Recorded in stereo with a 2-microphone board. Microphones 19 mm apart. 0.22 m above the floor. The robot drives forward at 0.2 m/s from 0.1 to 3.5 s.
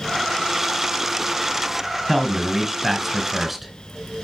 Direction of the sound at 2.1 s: 5° right (ahead or behind).